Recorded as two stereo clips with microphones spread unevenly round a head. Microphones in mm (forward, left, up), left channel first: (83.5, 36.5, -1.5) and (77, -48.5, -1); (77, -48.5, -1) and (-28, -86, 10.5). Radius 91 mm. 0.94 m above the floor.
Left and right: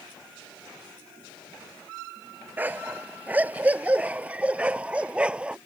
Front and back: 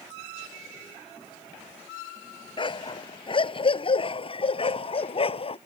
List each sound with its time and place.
2.6 s a dog barking: 25° right; by 5.6 s 15° right